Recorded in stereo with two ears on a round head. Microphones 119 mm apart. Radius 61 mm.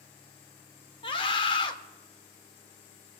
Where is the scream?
40° left (ahead or behind), 1.3 m.